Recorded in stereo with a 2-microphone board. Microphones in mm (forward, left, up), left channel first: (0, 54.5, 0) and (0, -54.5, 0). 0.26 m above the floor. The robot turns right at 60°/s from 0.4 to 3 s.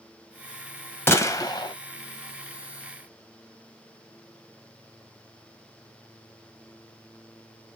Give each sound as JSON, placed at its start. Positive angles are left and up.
{"t": 1.1, "sound": "a gunshot", "azimuth_deg": 35, "distance_m": 0.5}